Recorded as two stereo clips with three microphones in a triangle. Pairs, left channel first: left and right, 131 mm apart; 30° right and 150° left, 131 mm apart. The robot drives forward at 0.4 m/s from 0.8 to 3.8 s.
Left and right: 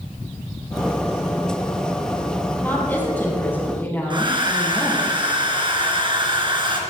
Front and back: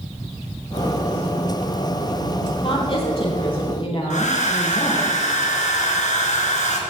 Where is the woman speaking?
15° left, 6 m.